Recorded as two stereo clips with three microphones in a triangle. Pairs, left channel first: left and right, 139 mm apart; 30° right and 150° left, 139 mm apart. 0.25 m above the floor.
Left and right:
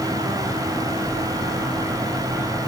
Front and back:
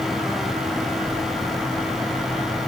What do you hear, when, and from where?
Only background noise.